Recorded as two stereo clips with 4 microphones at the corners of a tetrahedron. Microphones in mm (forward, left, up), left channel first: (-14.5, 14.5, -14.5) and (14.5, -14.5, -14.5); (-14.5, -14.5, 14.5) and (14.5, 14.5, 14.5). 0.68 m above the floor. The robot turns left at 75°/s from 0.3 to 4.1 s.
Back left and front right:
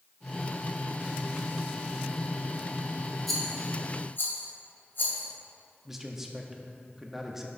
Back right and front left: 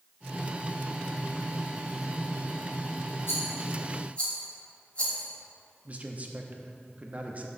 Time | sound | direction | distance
3.3 | a rattle | 135° right | 2 m
5.8 | a man speaking | 35° left | 0.9 m